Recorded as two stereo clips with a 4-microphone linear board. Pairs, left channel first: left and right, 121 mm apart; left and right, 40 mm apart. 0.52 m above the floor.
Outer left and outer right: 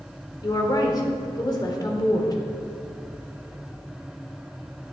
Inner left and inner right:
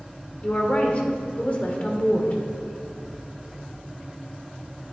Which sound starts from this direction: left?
A woman speaking, at 0.4 s.